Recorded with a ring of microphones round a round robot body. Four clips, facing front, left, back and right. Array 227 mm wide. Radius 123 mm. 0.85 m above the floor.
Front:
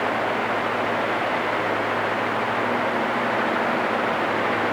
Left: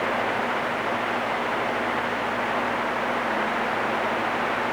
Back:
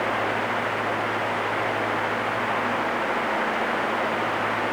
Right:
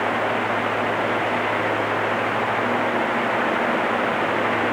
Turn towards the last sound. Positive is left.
No sound to turn to.